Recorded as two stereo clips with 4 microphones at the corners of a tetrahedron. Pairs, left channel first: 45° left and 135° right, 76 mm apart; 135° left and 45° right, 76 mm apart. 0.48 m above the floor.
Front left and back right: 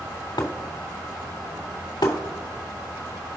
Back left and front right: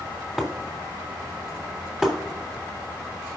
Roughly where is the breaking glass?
Ahead left.